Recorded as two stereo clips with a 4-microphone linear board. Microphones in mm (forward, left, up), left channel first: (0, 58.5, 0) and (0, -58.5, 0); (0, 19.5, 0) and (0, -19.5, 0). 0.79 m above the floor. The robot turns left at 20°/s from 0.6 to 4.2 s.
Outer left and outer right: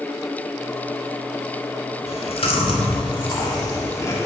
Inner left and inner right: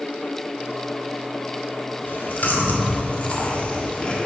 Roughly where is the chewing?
Left.